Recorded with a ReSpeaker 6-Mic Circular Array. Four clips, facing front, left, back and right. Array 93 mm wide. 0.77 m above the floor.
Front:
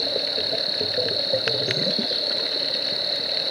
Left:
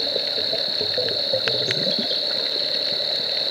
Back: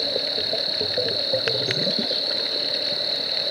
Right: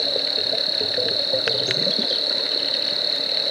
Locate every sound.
0.0 s an insect: 85° right, 1.5 m